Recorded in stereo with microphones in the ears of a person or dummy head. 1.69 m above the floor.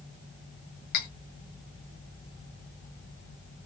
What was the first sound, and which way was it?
Cutlery clinking, 50° left (ahead or behind).